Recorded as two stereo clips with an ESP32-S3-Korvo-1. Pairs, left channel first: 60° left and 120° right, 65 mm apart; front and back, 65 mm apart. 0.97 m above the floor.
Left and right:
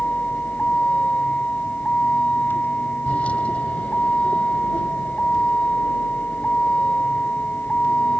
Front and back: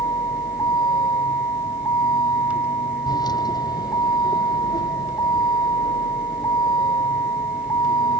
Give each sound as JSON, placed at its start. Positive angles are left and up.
{"t": 0.0, "sound": "a vehicle", "azimuth_deg": -10}